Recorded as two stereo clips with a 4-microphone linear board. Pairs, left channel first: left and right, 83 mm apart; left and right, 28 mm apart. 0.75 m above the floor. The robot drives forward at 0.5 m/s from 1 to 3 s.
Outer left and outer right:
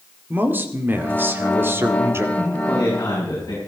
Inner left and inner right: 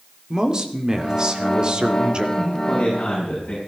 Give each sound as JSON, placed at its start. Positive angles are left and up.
{"t": 0.3, "sound": "a man speaking", "side_deg": -25, "distance_m": 2.0}
{"t": 2.4, "sound": "a man speaking", "side_deg": 40, "distance_m": 5.5}